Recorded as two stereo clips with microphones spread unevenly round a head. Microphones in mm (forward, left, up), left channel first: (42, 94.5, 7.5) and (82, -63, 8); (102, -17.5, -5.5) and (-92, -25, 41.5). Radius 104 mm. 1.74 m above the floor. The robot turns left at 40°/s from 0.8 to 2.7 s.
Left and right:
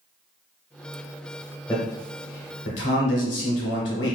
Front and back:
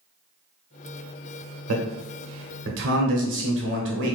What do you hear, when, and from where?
1.7 s a man speaking: 175° right, 0.7 m; by 4.2 s 145° left, 0.7 m